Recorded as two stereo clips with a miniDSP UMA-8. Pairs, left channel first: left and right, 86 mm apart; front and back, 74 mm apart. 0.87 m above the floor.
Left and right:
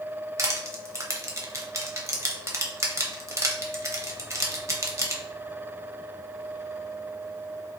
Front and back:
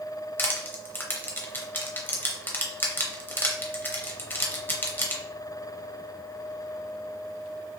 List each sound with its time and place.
0.4 s crushing: 50° right, 0.8 m